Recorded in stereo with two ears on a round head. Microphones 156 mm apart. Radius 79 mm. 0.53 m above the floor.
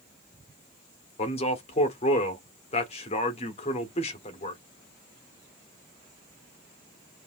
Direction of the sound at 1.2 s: 35° left (ahead or behind).